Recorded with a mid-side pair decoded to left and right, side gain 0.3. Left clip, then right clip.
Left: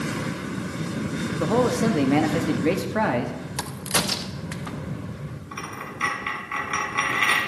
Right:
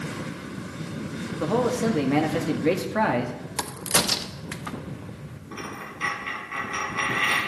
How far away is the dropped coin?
About 3 m.